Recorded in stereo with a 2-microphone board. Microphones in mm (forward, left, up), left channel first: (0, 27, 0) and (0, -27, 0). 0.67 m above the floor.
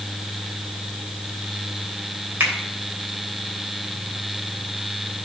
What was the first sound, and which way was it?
A finger snap, 40° right (ahead or behind).